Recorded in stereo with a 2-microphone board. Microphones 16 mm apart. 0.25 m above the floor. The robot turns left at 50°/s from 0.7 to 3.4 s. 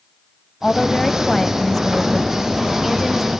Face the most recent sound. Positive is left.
turn(degrees=-60)